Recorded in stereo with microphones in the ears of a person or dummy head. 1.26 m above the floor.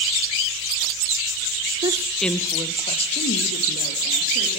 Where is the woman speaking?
25° right (ahead or behind), 0.6 m; by 4.6 s 50° left (ahead or behind), 2.5 m.